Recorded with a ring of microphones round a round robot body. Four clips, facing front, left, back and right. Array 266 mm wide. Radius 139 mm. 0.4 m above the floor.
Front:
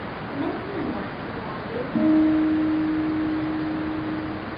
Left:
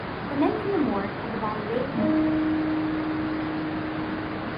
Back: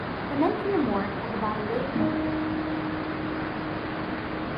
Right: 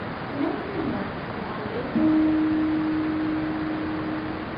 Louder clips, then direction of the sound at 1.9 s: Right 4 dB, front 11 dB; 20° right.